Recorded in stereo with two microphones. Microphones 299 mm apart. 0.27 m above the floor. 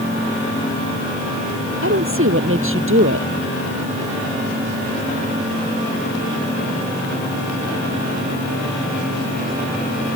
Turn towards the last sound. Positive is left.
turn(degrees=-45)  # may be behind; listen again after turning